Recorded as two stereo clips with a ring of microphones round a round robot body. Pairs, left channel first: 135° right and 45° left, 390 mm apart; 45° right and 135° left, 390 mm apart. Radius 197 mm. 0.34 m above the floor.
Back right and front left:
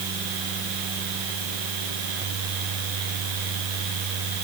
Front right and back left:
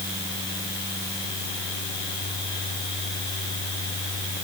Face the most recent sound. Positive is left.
No sound to turn to.